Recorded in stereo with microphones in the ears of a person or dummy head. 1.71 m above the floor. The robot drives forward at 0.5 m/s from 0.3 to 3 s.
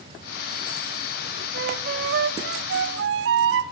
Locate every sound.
1.5 s a flute: 65° right (ahead or behind), 1.7 m; by 3.7 s 70° right (ahead or behind), 1.6 m